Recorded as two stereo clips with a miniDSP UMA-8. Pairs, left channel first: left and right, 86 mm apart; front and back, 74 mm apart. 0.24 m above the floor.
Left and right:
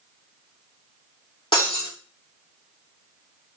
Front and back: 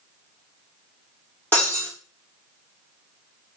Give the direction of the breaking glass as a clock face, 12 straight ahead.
10 o'clock.